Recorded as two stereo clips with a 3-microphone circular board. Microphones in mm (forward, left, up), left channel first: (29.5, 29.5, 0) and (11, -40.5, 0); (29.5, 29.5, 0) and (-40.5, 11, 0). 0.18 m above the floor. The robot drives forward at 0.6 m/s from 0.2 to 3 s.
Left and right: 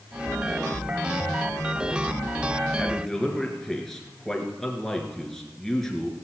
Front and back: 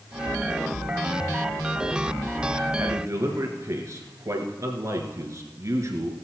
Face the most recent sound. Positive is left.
turn(degrees=155)